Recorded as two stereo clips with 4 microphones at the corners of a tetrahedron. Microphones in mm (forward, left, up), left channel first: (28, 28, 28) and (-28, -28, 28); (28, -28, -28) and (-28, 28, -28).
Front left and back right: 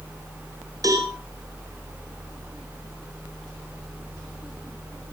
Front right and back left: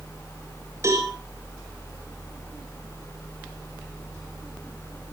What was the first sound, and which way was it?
A cowbell, straight behind.